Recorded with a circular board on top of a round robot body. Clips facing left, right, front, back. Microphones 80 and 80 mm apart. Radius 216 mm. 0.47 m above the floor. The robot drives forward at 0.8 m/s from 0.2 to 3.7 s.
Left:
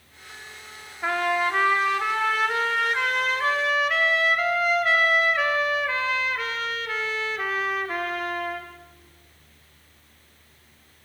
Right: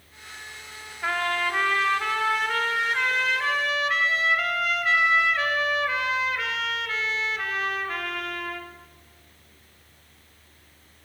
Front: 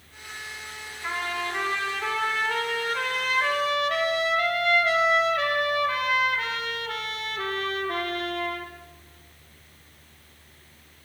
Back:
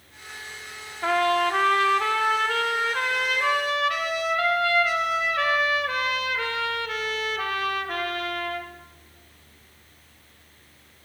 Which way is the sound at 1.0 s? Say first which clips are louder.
Left 3 dB, back 9 dB; 170° left.